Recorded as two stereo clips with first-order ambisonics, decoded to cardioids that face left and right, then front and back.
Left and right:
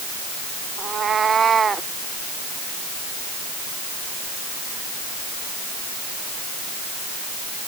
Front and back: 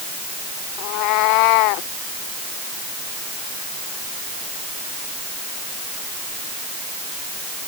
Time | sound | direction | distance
0.8 | a cat meowing | 25° right | ?